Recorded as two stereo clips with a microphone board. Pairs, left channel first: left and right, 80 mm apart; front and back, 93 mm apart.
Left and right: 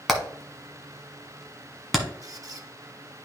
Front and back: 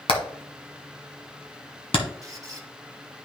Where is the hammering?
Straight ahead, 1.5 m.